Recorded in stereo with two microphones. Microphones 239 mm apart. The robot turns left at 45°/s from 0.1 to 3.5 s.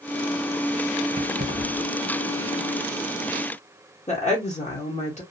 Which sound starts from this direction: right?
Keys jangling, at 1.1 s.